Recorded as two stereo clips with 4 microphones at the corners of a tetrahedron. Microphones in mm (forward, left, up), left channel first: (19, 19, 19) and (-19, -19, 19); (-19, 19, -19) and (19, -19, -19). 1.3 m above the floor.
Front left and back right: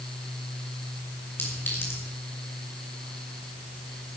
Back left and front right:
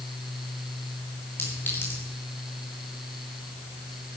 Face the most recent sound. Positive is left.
turn(degrees=90)